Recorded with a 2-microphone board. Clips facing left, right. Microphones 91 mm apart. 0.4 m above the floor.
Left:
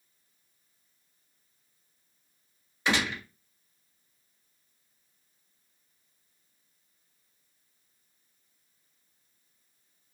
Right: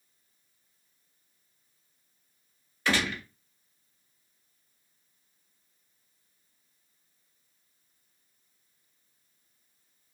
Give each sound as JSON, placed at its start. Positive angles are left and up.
{"t": 2.9, "sound": "a gunshot", "side_deg": 20, "distance_m": 1.3}